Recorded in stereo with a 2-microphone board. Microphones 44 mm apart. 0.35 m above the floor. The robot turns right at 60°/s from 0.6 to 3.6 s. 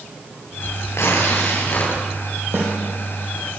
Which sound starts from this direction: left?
Tearing paper, at 0.9 s.